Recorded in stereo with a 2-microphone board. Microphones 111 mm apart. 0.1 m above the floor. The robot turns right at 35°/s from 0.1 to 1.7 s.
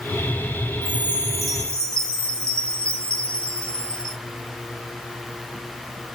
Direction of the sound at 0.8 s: 20° right.